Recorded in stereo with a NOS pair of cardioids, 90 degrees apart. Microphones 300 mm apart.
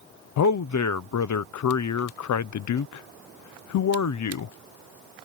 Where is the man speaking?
70° left.